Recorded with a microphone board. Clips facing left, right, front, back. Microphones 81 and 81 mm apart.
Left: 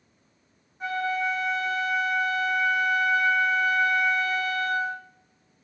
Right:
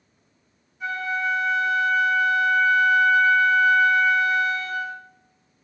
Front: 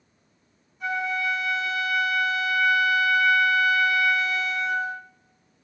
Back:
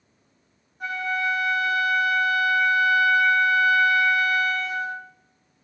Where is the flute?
140° left, 1.6 m.